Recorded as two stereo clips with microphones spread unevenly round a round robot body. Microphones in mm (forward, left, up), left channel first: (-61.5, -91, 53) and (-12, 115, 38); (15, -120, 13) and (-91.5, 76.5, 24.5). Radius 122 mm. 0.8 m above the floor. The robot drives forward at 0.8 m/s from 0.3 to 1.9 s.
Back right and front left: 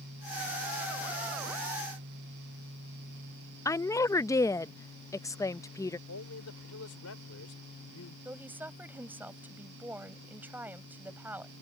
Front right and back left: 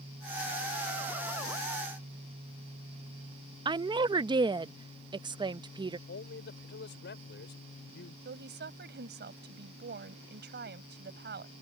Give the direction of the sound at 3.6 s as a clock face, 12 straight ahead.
6 o'clock.